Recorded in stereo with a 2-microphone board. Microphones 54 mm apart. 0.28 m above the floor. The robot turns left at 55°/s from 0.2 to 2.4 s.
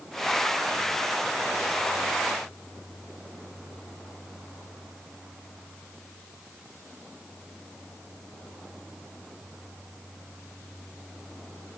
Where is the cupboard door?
No cupboard door in this recording.